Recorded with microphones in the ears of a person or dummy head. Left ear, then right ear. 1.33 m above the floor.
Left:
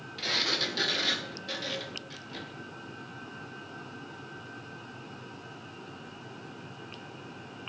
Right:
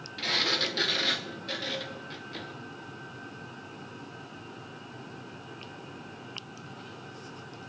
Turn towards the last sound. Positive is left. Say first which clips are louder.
# right 1 dB
turn(degrees=-10)  # may be behind; listen again after turning